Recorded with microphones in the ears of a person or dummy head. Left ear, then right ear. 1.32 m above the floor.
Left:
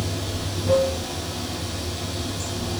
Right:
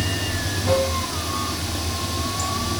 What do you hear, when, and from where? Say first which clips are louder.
0.0 s running water: right 4 dB; 60° right (ahead or behind), 1.6 m